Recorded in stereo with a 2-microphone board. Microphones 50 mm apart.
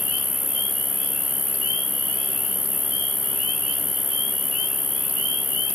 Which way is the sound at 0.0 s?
Centre (ahead or behind).